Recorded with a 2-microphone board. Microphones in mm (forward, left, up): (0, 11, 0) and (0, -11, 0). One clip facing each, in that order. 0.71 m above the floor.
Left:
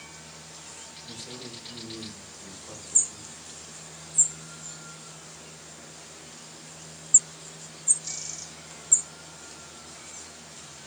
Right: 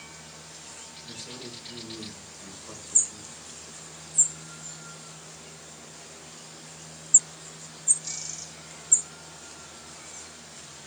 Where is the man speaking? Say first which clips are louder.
Even; 5° right (ahead or behind), 3 m.